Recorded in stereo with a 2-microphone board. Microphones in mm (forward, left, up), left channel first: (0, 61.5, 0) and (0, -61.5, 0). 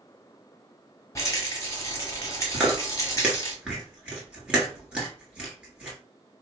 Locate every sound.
1.1 s a rattle: 25° left (ahead or behind), 1.2 m
2.5 s chewing: 10° right (ahead or behind), 1.2 m